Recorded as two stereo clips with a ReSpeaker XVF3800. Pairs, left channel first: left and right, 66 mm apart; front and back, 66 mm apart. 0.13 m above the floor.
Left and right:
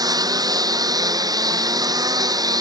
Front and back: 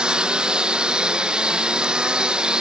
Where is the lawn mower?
100° right.